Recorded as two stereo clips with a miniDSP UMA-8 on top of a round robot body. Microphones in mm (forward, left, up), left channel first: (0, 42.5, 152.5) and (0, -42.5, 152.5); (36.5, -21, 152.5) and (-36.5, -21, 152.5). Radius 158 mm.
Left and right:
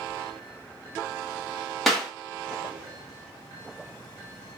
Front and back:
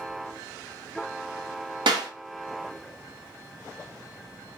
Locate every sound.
1.9 s a clap: straight behind, 1.8 m